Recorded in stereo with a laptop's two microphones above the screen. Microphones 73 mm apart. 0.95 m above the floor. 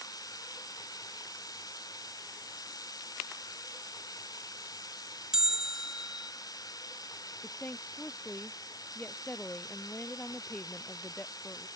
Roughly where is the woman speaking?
Left.